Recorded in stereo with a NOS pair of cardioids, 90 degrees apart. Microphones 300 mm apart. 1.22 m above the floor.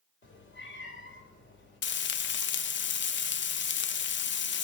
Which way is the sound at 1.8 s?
40° left.